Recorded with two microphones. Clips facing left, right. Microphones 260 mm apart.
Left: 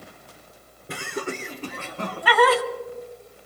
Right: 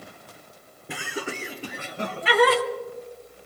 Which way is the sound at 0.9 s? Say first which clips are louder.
Left 2 dB; 5° right (ahead or behind).